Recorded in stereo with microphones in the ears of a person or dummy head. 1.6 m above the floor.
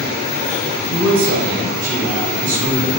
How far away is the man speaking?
About 1.2 m.